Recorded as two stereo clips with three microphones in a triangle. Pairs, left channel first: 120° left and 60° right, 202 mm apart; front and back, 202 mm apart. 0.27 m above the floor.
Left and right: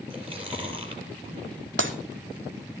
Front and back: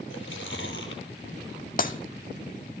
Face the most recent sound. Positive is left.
turn(degrees=-45)